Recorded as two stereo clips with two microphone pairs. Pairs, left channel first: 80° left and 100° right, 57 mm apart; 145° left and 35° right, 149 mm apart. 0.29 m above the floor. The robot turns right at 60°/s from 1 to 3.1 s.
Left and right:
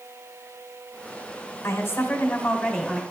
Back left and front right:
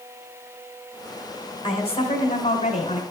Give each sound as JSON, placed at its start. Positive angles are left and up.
{"t": 1.6, "sound": "a woman speaking", "azimuth_deg": 100, "distance_m": 2.5}